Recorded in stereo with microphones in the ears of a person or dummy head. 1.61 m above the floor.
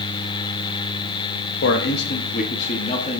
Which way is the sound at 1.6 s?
65° left (ahead or behind).